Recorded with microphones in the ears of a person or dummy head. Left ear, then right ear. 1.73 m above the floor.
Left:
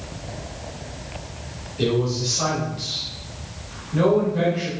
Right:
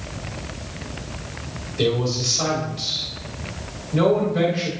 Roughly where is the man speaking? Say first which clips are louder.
Right 1 dB; right.